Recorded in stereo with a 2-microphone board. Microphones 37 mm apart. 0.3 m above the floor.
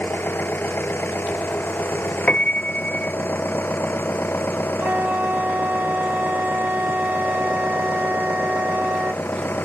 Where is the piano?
30° left (ahead or behind).